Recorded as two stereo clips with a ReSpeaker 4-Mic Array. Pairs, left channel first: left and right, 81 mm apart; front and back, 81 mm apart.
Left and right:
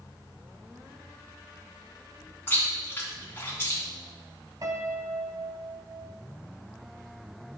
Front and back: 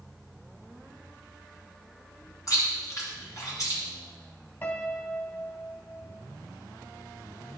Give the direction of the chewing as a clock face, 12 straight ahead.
11 o'clock.